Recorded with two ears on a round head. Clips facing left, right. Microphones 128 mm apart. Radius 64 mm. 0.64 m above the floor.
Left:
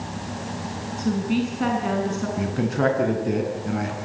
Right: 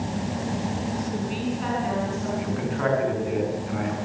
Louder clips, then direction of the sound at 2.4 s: Left 7 dB; 50° left (ahead or behind).